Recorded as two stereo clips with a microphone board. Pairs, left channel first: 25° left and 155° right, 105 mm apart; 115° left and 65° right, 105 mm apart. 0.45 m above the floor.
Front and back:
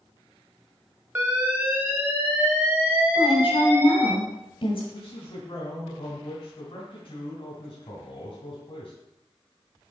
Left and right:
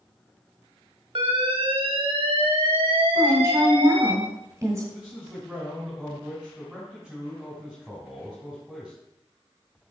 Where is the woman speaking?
5° right, 1.7 m.